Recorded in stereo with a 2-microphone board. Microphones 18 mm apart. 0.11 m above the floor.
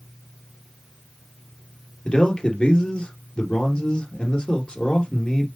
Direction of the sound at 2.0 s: 50° left (ahead or behind).